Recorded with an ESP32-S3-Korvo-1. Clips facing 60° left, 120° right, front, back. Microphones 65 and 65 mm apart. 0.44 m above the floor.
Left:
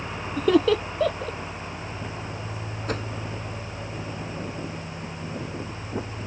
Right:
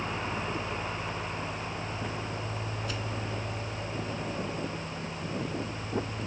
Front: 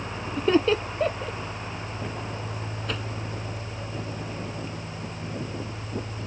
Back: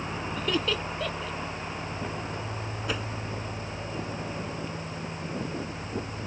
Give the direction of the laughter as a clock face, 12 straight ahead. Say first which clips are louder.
Left 14 dB, front 9 dB; 10 o'clock.